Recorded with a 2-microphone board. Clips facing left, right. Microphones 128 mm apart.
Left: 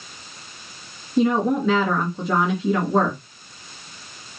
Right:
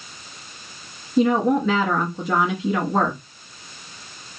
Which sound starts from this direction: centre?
A woman speaking, at 1.2 s.